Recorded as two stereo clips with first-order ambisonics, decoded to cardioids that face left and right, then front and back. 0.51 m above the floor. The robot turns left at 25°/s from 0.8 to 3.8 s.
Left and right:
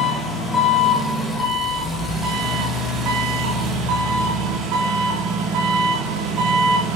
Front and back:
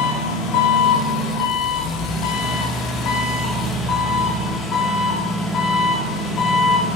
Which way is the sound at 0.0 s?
20° left.